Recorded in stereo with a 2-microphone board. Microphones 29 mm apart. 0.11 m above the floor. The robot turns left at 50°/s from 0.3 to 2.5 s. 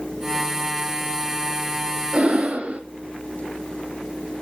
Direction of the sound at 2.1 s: 40° right (ahead or behind).